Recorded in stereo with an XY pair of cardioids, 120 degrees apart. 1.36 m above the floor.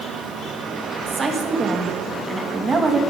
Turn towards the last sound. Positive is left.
turn(degrees=-25)